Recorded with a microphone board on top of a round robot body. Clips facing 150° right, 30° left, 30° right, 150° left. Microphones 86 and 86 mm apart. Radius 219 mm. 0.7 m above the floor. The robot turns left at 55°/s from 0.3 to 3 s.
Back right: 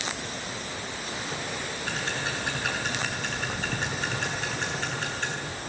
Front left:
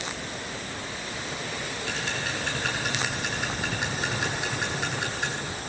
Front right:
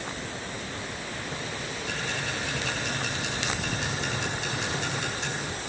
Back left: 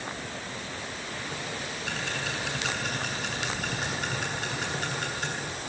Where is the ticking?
170° left, 8.5 m; by 5.3 s 110° left, 8.5 m.